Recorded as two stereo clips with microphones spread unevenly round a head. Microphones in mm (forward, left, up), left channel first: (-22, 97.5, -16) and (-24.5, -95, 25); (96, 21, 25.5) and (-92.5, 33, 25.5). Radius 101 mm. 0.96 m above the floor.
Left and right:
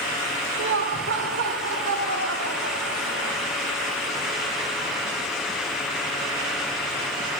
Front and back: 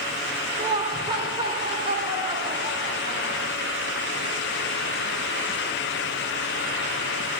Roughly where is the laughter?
Behind right.